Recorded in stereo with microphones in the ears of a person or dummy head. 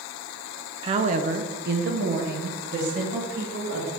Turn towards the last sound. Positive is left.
turn(degrees=-55)  # may be behind; listen again after turning